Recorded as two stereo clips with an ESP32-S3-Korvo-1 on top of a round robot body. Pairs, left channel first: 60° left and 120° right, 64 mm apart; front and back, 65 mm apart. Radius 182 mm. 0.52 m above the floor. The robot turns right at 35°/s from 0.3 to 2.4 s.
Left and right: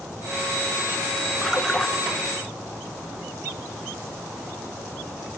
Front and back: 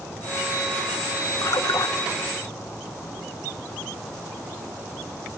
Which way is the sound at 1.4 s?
35° right.